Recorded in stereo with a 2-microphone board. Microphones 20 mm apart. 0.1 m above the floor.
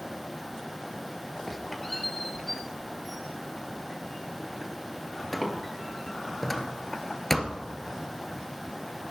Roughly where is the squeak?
Centre.